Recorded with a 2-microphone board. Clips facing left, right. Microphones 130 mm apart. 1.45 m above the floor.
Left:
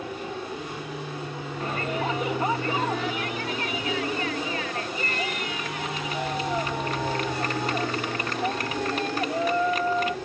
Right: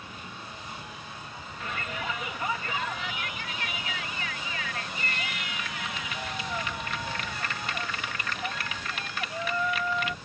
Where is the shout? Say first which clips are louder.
Left 7 dB; 40° left (ahead or behind).